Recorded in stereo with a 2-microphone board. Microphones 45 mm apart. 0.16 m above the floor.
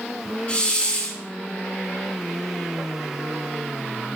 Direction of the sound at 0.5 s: 30° left (ahead or behind).